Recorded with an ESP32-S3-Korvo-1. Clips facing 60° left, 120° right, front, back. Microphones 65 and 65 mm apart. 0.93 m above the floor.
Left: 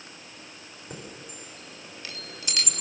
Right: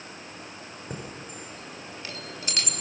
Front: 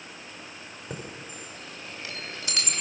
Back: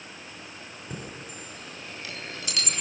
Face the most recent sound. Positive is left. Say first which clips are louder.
# right 2 dB, front 1 dB
turn(degrees=-60)